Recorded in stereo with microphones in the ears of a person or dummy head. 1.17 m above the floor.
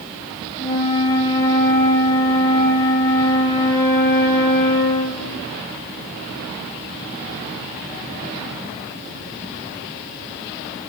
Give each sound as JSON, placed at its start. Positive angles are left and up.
{"t": 0.6, "sound": "a flute", "side_deg": 15, "distance_m": 1.4}